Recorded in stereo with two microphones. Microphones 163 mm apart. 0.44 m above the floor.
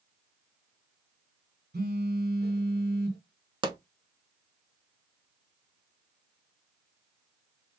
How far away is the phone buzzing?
About 0.8 m.